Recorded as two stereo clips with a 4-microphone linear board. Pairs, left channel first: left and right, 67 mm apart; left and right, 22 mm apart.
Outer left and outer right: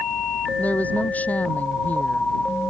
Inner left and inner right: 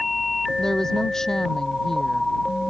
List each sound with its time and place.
0.6 s a woman speaking: 20° left (ahead or behind)